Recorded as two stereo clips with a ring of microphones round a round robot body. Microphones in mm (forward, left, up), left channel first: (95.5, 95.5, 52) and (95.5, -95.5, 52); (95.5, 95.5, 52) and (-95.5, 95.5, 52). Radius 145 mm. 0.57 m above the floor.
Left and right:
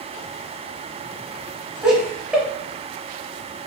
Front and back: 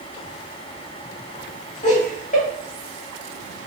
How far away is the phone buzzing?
I don't hear a phone buzzing.